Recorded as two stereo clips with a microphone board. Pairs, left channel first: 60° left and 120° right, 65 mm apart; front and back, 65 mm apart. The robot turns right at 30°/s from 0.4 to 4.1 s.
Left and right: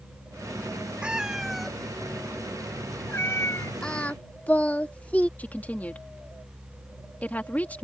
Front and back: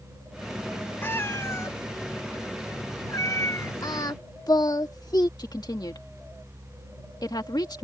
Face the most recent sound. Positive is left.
turn(degrees=-5)